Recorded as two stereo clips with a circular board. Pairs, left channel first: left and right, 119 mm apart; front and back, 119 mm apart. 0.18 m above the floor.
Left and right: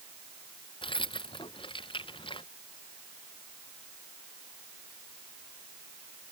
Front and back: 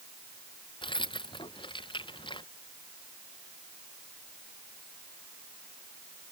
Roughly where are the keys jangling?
Ahead left.